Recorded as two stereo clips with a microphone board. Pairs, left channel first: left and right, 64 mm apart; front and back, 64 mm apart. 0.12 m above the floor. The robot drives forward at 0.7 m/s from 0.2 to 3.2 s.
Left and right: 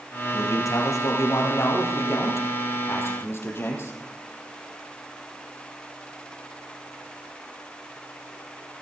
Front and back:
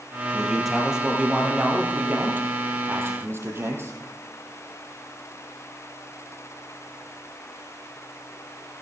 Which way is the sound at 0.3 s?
90° left.